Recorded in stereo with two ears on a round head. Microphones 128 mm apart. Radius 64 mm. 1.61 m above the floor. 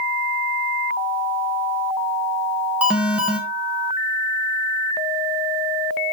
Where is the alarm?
10° right (ahead or behind), 2 m.